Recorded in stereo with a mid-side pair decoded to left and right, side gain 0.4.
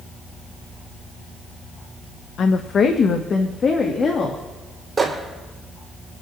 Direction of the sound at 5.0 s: 30° right.